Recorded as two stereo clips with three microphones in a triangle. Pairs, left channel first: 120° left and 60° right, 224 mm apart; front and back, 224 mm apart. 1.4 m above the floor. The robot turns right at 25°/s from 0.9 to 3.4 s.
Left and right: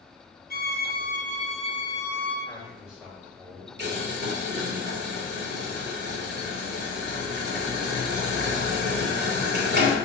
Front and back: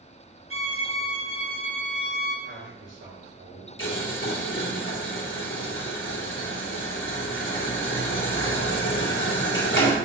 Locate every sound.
0.5 s a violin: 170° left, 1.1 m; by 2.4 s 155° right, 1.1 m
2.5 s a man speaking: 160° right, 3.5 m; by 3.7 s 135° right, 3.5 m
3.8 s boiling: 25° right, 2 m